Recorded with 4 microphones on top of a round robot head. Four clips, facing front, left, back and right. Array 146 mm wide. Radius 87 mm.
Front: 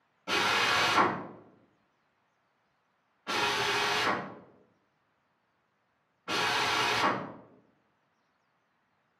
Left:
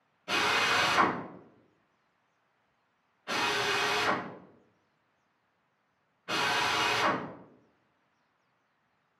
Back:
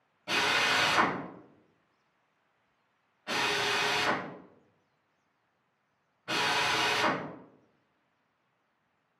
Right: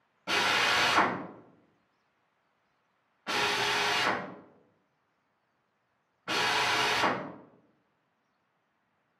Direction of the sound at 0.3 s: 90° right.